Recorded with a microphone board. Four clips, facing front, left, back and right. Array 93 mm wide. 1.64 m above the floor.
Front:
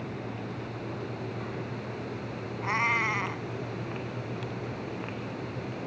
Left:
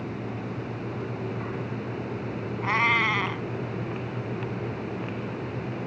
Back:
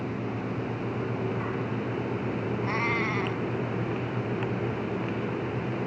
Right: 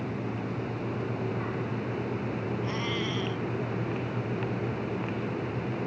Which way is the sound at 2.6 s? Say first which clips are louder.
Left 8 dB, front 3 dB; 75° left.